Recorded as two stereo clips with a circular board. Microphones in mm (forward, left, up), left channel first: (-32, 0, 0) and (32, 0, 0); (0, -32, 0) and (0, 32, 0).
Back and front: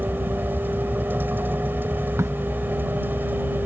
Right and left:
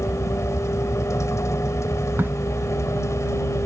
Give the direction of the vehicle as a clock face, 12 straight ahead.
2 o'clock.